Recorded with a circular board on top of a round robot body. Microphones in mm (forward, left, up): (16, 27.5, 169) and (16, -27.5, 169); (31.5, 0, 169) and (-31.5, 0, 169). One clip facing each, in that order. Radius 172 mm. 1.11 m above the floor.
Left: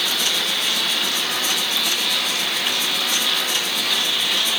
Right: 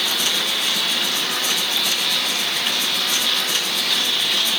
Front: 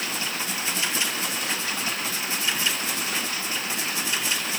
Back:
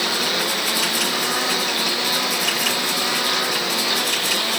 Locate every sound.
0.0 s a lawn mower: straight behind; by 4.6 s 175° left